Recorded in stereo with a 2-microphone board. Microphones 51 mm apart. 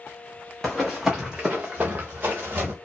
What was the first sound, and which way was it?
Running footsteps, 10° left (ahead or behind).